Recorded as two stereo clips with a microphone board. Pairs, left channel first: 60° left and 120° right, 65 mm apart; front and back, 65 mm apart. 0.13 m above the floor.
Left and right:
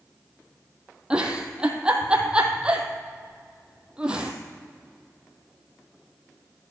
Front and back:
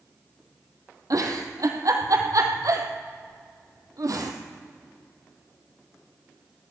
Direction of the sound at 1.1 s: 165° left.